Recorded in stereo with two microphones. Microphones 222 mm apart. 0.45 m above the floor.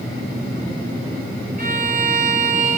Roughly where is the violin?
Right.